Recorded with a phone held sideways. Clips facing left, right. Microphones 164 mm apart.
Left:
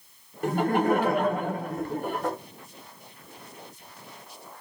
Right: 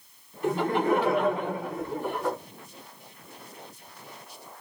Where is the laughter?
55° left (ahead or behind), 1.2 m.